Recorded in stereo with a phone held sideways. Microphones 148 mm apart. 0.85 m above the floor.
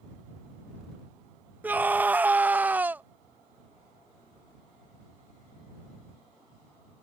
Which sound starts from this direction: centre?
A scream, at 1.6 s.